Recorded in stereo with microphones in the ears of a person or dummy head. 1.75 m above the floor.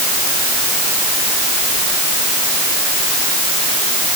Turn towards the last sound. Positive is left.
No sound to turn to.